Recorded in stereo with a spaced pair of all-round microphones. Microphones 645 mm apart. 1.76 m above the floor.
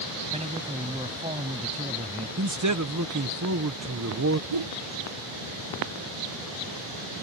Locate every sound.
0.3 s a man speaking: 10° right (ahead or behind)
2.4 s a man speaking: 25° right (ahead or behind)
4.5 s a whoosh: 50° right (ahead or behind)